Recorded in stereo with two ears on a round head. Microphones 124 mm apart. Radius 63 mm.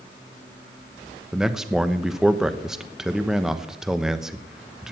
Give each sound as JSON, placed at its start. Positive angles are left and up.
{"t": 1.3, "sound": "a man speaking", "side_deg": -5, "distance_m": 1.0}